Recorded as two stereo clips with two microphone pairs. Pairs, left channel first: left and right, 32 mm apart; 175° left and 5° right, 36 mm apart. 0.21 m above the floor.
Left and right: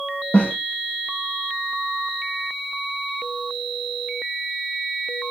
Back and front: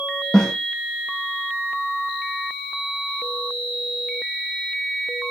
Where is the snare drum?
95° left, 3.5 m.